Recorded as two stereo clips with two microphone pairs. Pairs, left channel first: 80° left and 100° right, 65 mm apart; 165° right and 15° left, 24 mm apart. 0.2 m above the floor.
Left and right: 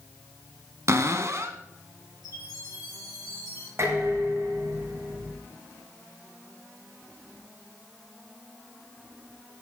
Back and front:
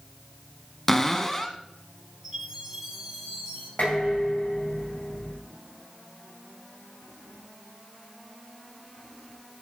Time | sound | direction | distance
0.9 | a cupboard door | 90° right | 1.1 m
2.2 | a chime | 85° left | 6 m
3.8 | dishes clattering | 140° right | 9.5 m